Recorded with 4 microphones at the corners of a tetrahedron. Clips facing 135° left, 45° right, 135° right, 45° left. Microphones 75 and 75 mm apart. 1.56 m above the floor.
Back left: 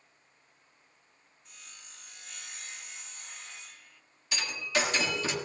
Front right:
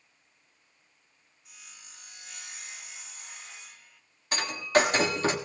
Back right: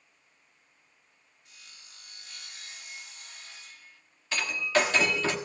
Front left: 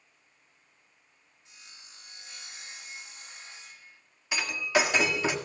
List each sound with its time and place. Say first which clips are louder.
1.4 s sawing: front right 1 dB, front left 1 dB; 35° left, 0.9 m
4.3 s breaking glass: front right 7 dB, even; 30° right, 1.4 m